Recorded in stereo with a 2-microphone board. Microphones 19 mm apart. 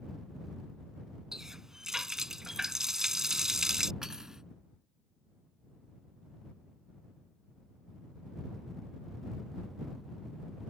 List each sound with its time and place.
1.3 s a running tap: 30° right (ahead or behind)
4.0 s cutlery clinking: 30° right (ahead or behind)